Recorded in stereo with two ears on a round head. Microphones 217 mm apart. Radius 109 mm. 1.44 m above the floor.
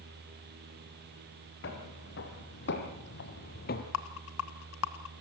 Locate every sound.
1.6 s footsteps: 50° left (ahead or behind), 4 m; by 3.8 s 40° left (ahead or behind), 1.8 m
3.9 s a rattle: 60° left (ahead or behind), 1.3 m